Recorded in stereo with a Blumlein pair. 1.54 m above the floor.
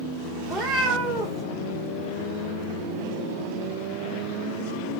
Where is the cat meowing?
10° right, 2.5 m.